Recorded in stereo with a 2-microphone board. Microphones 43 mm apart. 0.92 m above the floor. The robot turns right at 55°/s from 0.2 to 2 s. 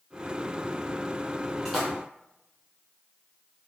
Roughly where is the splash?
Centre.